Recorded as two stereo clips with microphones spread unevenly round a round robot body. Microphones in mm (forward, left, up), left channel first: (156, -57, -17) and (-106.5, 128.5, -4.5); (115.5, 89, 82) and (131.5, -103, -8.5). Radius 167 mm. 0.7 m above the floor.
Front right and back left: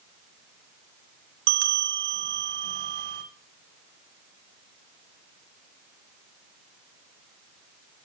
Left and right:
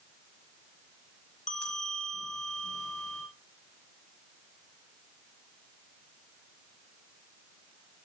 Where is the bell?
155° left, 1.4 m.